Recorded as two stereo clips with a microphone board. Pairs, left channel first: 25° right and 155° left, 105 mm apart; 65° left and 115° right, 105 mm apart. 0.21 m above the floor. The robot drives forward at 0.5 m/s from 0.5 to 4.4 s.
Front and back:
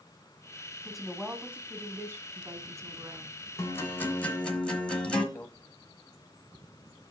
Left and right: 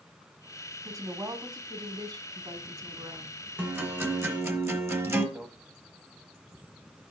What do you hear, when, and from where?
0.8 s a woman speaking: 110° right, 1.1 m; by 3.4 s 160° right, 1.8 m
3.6 s a guitar: 55° right, 1.2 m; by 5.2 s 90° right, 1.2 m
5.3 s a microwave: 55° right, 0.9 m